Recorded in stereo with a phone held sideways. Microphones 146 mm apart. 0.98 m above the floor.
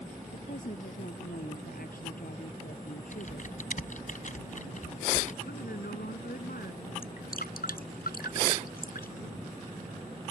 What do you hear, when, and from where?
0.3 s a woman speaking: 70° left (ahead or behind); by 4.1 s 85° left
3.1 s typing on a keyboard: 60° left (ahead or behind)
5.5 s a woman speaking: 90° left
7.0 s dripping: 85° left